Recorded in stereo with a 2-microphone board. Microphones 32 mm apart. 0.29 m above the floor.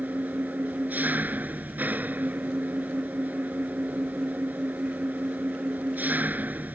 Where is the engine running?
60° right (ahead or behind).